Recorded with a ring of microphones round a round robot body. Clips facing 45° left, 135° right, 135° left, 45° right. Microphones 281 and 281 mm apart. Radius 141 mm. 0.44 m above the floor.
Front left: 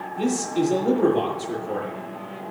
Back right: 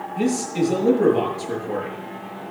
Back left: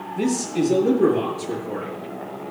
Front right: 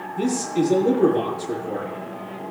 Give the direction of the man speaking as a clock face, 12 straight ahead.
5 o'clock.